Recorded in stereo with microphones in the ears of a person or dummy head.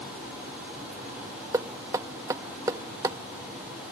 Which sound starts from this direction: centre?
Knocking, at 1.5 s.